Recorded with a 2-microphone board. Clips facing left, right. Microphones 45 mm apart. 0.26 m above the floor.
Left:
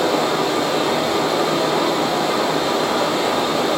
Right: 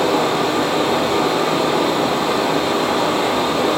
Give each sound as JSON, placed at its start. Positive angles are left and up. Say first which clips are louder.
{"t": 0.0, "sound": "running water", "louder": "right 1 dB", "side_deg": -45, "distance_m": 0.9}